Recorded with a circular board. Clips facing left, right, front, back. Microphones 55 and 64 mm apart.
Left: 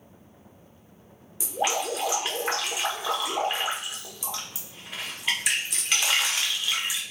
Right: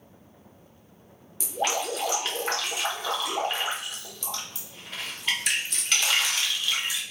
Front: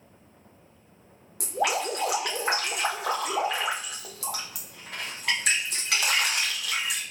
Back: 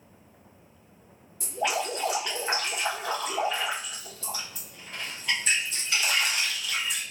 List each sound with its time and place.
1.4 s dripping: 10° left, 0.9 m